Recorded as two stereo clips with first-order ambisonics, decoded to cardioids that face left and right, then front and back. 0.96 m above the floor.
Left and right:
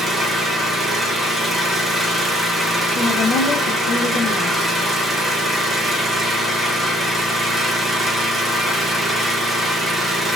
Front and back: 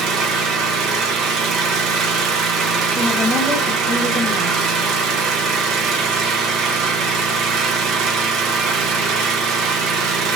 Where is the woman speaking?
85° left, 0.7 m.